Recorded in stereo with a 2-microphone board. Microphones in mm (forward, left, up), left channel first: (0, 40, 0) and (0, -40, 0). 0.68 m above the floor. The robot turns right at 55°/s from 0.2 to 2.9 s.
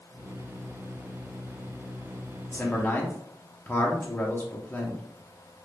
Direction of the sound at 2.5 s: 15° left (ahead or behind).